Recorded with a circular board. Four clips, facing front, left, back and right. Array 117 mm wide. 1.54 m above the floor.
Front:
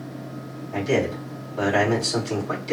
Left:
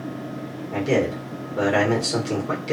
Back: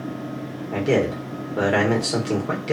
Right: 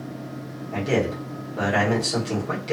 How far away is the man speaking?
About 1.4 m.